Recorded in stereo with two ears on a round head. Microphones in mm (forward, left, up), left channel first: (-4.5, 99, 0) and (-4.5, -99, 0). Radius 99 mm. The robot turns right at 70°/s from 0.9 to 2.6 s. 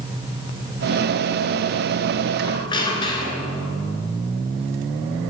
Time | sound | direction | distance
2.4 | a squeak | 25° left (ahead or behind) | 1.3 m